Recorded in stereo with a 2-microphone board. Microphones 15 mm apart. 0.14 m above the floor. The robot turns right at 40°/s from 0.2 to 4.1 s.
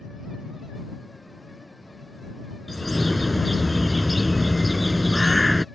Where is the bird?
120° left; by 5.7 s 175° left.